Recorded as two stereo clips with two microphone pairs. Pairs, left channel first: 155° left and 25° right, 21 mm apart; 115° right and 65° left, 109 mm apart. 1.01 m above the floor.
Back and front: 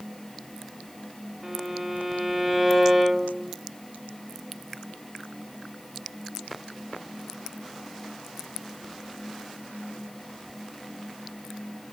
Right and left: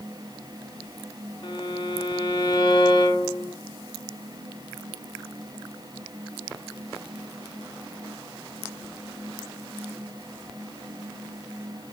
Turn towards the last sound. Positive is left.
turn(degrees=-95)